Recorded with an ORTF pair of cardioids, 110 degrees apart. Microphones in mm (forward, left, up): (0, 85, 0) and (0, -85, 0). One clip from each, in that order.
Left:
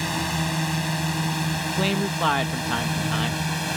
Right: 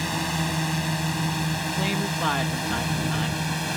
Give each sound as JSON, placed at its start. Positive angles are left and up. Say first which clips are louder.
{"t": 0.0, "sound": "a drone", "louder": "left 1 dB", "azimuth_deg": 15}
{"t": 1.8, "sound": "a man speaking", "louder": "left 4 dB", "azimuth_deg": 40}